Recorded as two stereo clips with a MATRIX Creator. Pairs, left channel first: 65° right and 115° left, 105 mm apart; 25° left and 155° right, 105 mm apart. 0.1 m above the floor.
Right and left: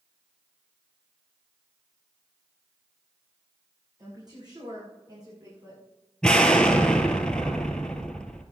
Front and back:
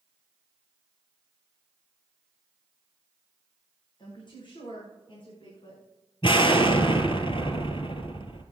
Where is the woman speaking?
65° left, 6.5 m; by 5.8 s 60° left, 7.5 m.